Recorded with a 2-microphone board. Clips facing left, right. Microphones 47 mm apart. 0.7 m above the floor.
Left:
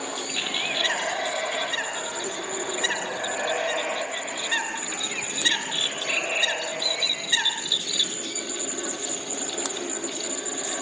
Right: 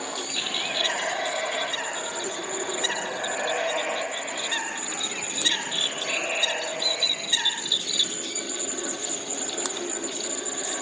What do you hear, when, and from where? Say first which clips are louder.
0.3 s a bird: left 2 dB; 25° left (ahead or behind), 8 m